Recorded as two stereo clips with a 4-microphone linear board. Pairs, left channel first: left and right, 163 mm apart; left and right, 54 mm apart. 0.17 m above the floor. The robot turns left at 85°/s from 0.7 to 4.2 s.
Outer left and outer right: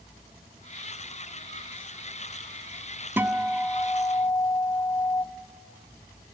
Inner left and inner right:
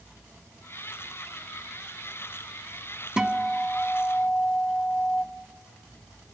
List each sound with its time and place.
3.2 s a guitar: 15° right (ahead or behind), 0.5 m; by 5.2 s 20° left (ahead or behind), 0.5 m